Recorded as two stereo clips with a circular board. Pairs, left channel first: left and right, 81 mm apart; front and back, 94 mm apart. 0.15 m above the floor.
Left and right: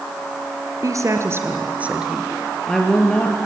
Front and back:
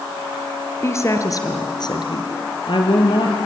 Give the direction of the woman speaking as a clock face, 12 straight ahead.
2 o'clock.